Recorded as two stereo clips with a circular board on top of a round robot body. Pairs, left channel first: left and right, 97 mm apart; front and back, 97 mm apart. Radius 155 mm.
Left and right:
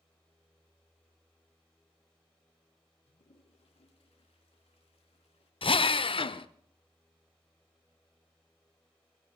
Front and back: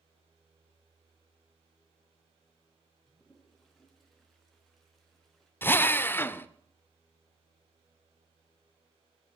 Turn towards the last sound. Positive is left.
turn(degrees=70)